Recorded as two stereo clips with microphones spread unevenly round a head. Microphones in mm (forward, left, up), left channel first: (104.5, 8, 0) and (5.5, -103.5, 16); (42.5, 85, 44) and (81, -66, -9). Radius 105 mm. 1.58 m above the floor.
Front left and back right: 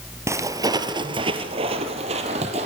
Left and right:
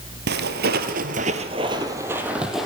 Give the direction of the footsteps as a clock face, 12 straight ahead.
3 o'clock.